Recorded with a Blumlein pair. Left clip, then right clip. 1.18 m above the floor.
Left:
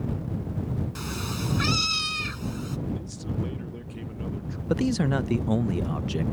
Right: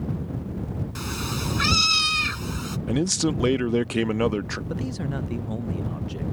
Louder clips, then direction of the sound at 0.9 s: Right 6 dB; 10° right.